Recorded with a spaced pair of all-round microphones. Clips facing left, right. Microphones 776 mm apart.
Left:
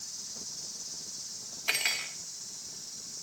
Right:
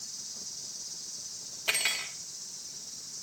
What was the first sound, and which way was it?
An insect, 15° left (ahead or behind).